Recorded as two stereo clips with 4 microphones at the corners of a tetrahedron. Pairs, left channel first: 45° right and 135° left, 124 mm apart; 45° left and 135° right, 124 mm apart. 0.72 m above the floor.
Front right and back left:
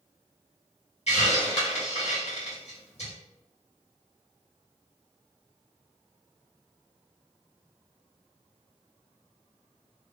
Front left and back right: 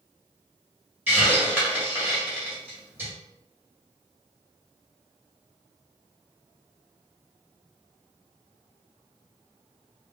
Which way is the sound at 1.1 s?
65° right.